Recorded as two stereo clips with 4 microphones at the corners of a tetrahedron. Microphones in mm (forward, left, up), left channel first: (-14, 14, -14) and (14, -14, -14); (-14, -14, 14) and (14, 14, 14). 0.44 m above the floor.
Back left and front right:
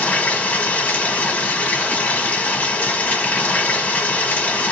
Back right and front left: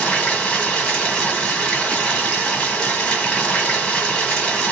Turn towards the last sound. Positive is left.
turn(degrees=165)